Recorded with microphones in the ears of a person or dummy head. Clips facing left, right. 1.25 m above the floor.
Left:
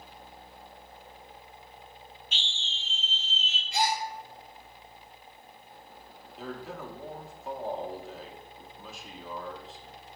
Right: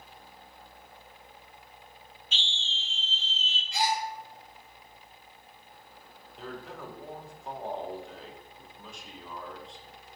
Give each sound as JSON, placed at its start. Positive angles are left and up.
{"t": 2.3, "sound": "a scream", "side_deg": -75, "distance_m": 1.0}
{"t": 3.7, "sound": "a gasp", "side_deg": 30, "distance_m": 2.0}
{"t": 6.4, "sound": "a man speaking", "side_deg": 5, "distance_m": 1.0}